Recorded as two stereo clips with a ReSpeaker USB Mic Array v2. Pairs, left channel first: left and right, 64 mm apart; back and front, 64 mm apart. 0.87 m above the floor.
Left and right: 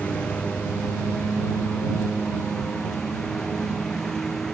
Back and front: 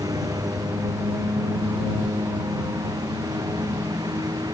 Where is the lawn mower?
20° left; by 4.5 s 5° left.